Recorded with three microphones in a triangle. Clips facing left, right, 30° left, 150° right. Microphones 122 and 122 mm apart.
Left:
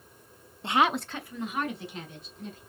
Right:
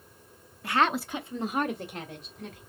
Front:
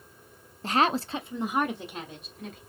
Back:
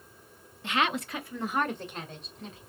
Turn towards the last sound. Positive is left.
turn(degrees=-60)